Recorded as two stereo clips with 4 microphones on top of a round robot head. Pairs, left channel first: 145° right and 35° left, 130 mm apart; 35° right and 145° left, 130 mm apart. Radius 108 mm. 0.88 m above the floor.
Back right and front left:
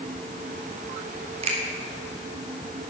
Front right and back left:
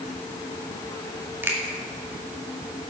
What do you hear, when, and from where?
1.4 s a finger snap: 70° left, 2 m